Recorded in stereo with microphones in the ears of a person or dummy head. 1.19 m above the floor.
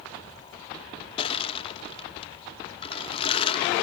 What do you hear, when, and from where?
1.2 s crushing: 30° left (ahead or behind), 1.8 m